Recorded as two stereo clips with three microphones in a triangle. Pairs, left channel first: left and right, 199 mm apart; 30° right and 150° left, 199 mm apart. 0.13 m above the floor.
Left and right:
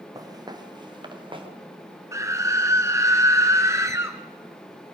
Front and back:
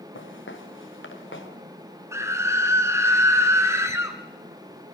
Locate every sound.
0.1 s footsteps: 20° right, 3 m; by 1.5 s 25° right, 4 m
2.1 s a scream: 150° right, 1.6 m